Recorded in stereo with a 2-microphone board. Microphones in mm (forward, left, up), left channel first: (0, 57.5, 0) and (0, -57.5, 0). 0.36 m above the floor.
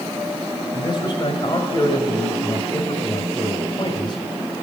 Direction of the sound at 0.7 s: 40° left (ahead or behind).